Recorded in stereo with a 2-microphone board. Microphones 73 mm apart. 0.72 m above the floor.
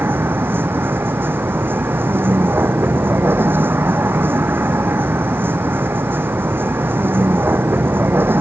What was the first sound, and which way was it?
A vehicle, 30° right (ahead or behind).